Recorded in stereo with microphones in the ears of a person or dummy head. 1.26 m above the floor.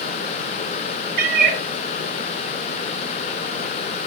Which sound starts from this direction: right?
A cat meowing, at 1.2 s.